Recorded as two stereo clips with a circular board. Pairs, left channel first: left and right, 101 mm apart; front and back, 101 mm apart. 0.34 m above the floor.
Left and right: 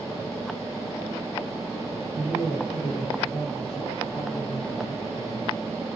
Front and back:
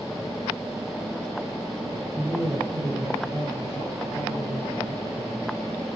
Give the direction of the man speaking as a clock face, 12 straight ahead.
9 o'clock.